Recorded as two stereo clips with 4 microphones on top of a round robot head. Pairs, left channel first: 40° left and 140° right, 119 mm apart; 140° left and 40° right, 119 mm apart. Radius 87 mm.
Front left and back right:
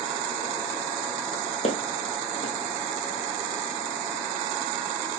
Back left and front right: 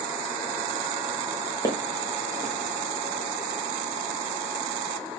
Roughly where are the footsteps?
Left.